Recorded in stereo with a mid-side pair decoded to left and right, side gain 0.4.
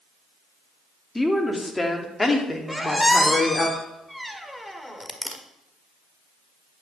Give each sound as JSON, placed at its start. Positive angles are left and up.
{"t": 1.1, "sound": "a woman speaking", "azimuth_deg": 10, "distance_m": 2.0}
{"t": 2.7, "sound": "a squeak", "azimuth_deg": 5, "distance_m": 1.6}